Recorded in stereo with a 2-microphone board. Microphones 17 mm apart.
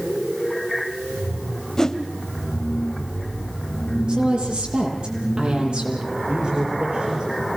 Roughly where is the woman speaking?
Right.